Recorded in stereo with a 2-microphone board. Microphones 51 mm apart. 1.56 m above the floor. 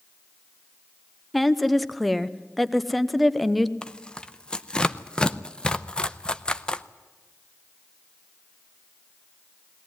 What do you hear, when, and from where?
1.3 s a woman speaking: centre (ahead or behind), 0.8 m
3.8 s tearing paper: 15° left (ahead or behind), 0.6 m